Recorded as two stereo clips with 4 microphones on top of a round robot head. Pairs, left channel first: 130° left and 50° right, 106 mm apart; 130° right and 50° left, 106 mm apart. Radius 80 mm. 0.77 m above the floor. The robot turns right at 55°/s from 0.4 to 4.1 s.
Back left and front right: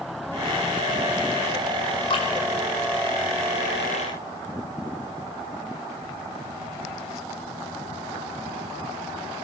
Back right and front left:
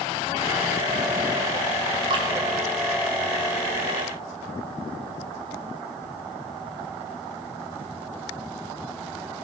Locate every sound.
2.1 s dripping: 90° left, 4.5 m; by 2.3 s 100° left, 4.5 m